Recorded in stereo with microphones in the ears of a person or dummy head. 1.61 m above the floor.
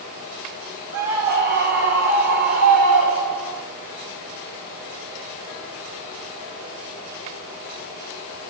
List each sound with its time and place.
0.9 s a scream: 50° right (ahead or behind), 5.5 m; by 3.6 s 65° right (ahead or behind), 6 m